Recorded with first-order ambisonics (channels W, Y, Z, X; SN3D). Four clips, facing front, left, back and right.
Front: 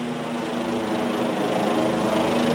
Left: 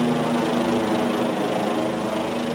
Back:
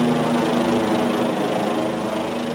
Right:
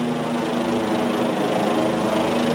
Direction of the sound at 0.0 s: 165° left.